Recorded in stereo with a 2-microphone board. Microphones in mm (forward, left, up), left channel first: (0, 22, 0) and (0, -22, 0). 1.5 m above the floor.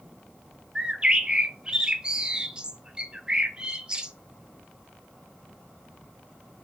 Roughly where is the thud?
I don't hear a thud.